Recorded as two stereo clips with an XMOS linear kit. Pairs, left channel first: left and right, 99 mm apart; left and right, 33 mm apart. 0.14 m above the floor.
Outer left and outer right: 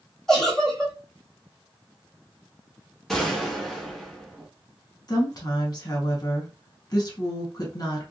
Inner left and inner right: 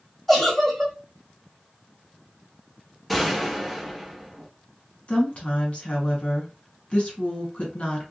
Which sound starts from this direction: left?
A woman speaking, at 5.1 s.